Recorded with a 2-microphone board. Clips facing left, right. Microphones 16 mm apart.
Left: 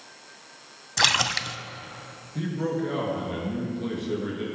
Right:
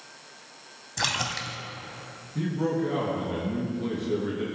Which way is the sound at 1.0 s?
35° left (ahead or behind).